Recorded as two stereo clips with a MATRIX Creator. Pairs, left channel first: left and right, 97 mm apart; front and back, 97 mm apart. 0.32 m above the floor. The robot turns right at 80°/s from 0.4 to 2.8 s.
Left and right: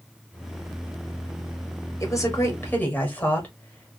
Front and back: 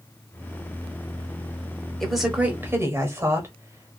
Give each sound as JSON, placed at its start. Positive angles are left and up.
{"t": 2.0, "sound": "a woman speaking", "azimuth_deg": 85, "distance_m": 0.9}